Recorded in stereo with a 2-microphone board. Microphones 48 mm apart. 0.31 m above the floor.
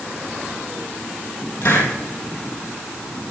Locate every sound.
1.6 s a hiss: 80° left, 3 m